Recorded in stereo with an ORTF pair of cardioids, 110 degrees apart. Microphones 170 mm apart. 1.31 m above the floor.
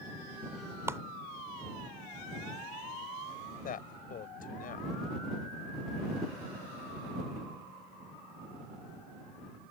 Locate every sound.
0.9 s a clap: 15° right
3.6 s a man speaking: 55° left